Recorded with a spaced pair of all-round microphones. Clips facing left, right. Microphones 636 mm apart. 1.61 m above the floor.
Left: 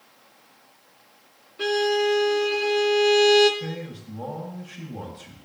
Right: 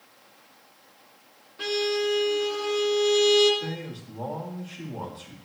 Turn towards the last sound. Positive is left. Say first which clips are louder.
# left 1 dB
turn(degrees=50)  # may be behind; listen again after turning